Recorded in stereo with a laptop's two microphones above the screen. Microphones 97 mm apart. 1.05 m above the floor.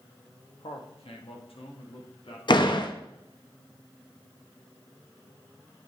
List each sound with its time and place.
0.6 s a man speaking: 75° left (ahead or behind), 1.5 m; by 2.4 s 70° left (ahead or behind), 2.5 m
2.5 s a door slam: 50° left (ahead or behind), 0.8 m